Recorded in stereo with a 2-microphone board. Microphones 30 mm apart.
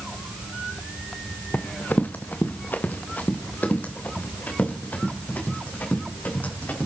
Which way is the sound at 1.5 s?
85° left.